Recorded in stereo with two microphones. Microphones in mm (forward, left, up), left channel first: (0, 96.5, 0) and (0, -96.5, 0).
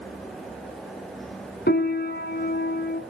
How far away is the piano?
About 1.1 m.